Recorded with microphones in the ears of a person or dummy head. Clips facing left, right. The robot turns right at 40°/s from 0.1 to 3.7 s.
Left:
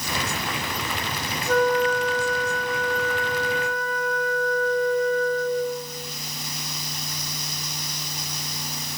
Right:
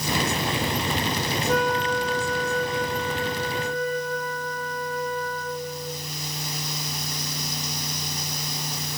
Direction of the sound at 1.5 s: 175° right.